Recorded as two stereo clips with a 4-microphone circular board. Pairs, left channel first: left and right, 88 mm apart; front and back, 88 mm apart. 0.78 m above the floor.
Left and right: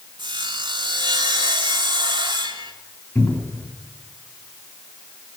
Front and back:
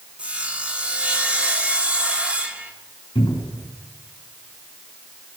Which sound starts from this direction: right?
Sawing, at 0.2 s.